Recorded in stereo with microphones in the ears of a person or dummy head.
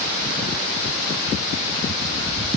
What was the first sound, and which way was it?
Only background noise.